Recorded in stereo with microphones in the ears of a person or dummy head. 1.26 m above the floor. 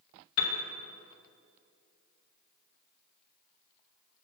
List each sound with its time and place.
0.4 s a piano: 60° left (ahead or behind), 1.1 m